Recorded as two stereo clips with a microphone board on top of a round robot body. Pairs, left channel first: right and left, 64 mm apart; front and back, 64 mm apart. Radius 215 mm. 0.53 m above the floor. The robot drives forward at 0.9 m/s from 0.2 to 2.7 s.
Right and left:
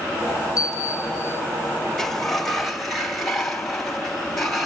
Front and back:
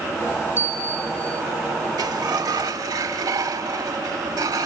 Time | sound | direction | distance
0.6 | a bell | 125° right | 0.7 m
2.0 | a sliding door | 175° right | 0.7 m